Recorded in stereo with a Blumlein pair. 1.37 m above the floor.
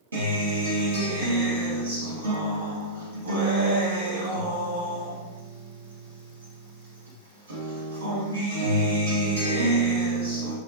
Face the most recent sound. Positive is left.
turn(degrees=-65)